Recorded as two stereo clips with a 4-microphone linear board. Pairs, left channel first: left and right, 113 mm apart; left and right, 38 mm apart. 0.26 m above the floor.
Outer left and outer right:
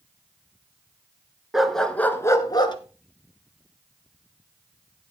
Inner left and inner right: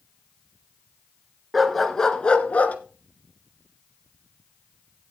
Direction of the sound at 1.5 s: 5° right (ahead or behind).